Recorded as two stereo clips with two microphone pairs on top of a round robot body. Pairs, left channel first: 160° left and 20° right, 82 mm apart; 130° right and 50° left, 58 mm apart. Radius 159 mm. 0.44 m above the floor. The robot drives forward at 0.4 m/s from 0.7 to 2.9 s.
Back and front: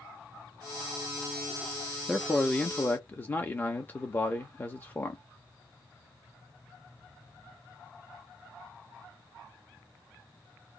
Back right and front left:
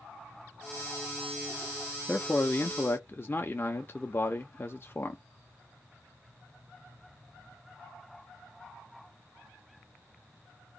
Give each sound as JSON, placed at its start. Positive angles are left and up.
{"t": 2.1, "sound": "a man speaking", "azimuth_deg": -100, "distance_m": 0.8}